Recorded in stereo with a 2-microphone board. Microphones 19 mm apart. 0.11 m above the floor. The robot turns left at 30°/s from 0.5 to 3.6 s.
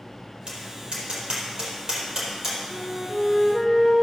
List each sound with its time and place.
0.5 s tapping: 65° right (ahead or behind), 4 m; by 2.6 s 20° right (ahead or behind), 4 m
2.7 s a flute: 20° left (ahead or behind), 2 m; by 3.9 s 35° left (ahead or behind), 2 m